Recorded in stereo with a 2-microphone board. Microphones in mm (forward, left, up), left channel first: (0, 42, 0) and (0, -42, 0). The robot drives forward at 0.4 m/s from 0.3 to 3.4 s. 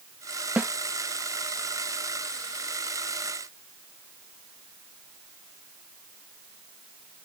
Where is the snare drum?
20° right (ahead or behind).